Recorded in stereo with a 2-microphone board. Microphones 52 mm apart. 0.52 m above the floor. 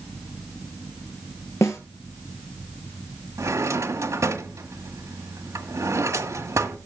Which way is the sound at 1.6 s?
70° left (ahead or behind).